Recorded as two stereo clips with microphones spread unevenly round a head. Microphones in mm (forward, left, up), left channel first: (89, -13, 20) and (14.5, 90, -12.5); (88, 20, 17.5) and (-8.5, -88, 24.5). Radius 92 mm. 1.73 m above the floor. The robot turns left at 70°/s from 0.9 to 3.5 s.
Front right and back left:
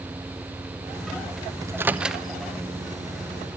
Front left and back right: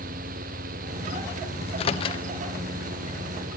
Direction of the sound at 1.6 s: 60° left.